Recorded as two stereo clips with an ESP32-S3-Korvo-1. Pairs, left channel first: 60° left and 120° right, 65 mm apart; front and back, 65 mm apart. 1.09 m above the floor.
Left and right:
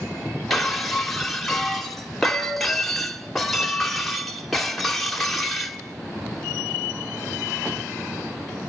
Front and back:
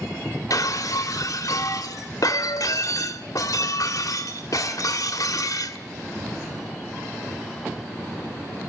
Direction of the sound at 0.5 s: 25° right.